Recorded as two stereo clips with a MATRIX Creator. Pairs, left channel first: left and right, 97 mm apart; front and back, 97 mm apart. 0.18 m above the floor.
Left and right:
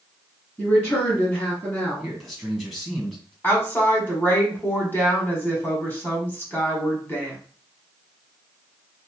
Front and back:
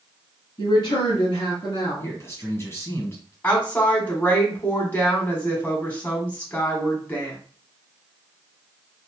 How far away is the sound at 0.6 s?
About 1.7 m.